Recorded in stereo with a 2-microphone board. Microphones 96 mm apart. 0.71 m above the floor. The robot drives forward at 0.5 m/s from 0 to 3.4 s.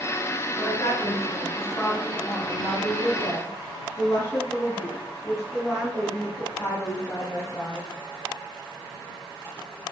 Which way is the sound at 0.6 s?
35° left (ahead or behind).